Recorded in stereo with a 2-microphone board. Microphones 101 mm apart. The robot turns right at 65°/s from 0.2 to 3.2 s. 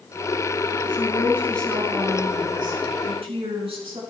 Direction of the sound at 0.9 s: 130° left.